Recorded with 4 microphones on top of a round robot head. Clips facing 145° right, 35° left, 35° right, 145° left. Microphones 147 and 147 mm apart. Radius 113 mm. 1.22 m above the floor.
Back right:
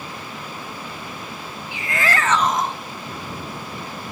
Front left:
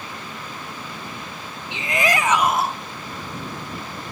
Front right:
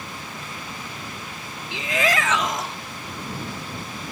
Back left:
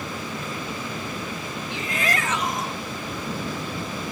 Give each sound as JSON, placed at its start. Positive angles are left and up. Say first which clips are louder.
{"t": 1.7, "sound": "a shout", "louder": "front left 2 dB, front right 5 dB", "azimuth_deg": -35}